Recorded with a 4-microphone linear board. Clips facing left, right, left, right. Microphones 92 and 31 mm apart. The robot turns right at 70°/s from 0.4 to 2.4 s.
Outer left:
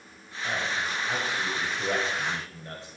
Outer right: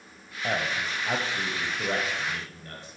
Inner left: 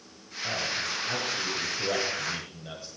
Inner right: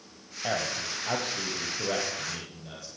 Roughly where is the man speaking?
Right.